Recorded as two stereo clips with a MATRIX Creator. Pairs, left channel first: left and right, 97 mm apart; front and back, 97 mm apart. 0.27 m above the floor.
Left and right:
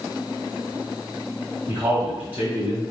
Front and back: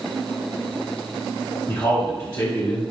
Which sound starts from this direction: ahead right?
A man speaking, at 1.7 s.